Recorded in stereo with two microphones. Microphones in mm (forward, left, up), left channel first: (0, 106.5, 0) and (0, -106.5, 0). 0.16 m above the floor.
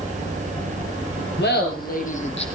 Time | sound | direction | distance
1.4 | laughter | 55° left (ahead or behind) | 3.5 m